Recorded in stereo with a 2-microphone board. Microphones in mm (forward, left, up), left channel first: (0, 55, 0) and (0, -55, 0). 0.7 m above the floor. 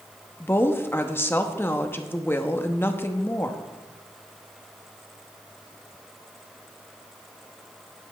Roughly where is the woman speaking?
Left.